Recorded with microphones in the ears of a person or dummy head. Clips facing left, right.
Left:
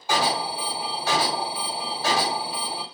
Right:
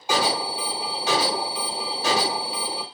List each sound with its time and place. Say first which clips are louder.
0.1 s an alarm: right 1 dB; 15° right (ahead or behind), 1.2 m